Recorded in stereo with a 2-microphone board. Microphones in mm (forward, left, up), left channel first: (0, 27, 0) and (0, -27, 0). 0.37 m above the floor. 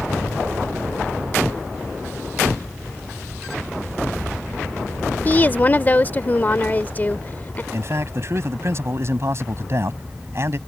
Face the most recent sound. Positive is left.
turn(degrees=-50)  # may be behind; listen again after turning